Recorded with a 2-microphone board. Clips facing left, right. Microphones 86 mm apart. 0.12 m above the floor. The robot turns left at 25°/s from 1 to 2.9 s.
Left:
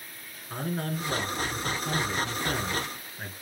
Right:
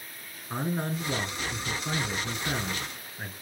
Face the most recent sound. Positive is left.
turn(degrees=-10)  # may be behind; listen again after turning